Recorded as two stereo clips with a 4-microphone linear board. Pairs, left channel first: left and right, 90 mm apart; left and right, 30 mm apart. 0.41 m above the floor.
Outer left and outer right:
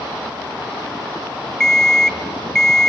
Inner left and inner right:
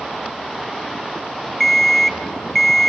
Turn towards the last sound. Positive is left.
turn(degrees=10)  # may be behind; listen again after turning